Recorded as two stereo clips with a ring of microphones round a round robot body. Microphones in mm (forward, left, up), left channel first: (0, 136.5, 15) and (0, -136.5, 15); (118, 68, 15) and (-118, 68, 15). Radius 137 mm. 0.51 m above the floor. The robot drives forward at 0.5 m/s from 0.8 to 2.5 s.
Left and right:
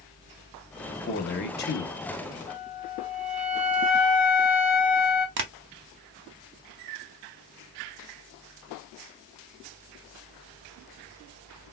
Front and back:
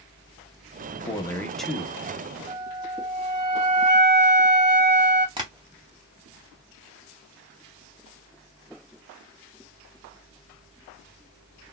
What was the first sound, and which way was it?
A man speaking, 55° left.